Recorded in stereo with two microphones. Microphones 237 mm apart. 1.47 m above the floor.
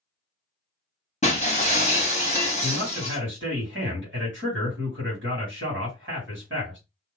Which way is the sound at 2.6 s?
55° right (ahead or behind).